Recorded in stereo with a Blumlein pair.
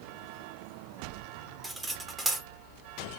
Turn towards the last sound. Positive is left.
turn(degrees=-10)